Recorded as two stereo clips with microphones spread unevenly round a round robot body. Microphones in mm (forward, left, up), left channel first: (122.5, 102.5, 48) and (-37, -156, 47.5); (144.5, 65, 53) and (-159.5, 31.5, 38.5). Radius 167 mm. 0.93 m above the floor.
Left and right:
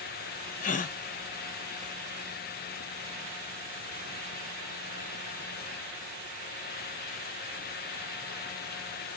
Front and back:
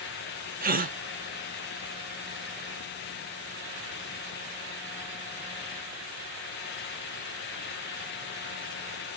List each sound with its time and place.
0.6 s a gasp: 125° left, 0.8 m